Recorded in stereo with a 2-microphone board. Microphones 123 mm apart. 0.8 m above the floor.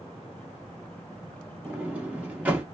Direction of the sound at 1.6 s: 15° right (ahead or behind).